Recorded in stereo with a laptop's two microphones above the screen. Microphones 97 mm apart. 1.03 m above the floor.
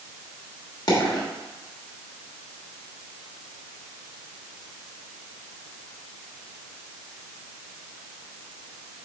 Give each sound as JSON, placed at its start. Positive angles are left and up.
{"t": 0.9, "sound": "a dropped coin", "side_deg": 40, "distance_m": 1.3}